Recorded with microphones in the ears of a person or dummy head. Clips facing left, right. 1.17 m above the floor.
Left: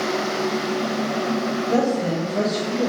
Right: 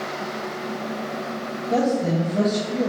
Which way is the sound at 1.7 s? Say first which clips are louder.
Right 1 dB; 10° left (ahead or behind).